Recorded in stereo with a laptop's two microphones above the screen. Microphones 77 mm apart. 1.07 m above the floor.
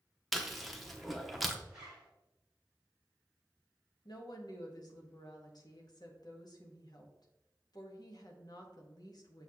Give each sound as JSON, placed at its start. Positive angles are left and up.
{"t": 0.3, "sound": "chewing", "side_deg": 0, "distance_m": 0.8}
{"t": 1.7, "sound": "a zipper", "side_deg": -10, "distance_m": 2.0}
{"t": 4.0, "sound": "a woman speaking", "side_deg": 60, "distance_m": 1.1}